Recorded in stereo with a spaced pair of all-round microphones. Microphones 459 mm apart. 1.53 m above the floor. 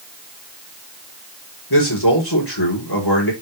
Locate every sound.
1.7 s a man speaking: 55° left (ahead or behind), 4.5 m